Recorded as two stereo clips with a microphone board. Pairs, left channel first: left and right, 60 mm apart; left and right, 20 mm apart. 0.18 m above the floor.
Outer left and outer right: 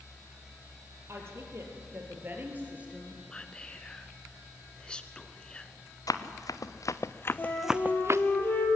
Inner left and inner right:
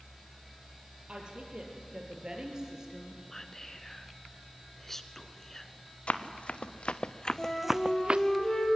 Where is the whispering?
15° left (ahead or behind), 1.8 m.